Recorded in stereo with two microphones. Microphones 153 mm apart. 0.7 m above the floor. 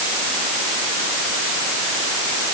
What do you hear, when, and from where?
Only background noise.